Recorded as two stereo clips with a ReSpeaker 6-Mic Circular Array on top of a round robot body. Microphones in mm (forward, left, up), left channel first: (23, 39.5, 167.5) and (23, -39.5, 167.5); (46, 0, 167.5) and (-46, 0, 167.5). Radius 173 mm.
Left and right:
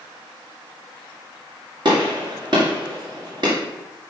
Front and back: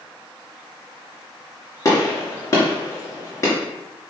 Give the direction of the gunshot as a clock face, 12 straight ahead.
2 o'clock.